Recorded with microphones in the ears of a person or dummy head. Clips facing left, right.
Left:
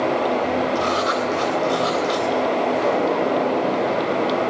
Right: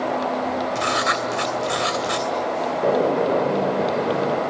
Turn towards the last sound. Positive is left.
turn(degrees=-30)  # may be behind; listen again after turning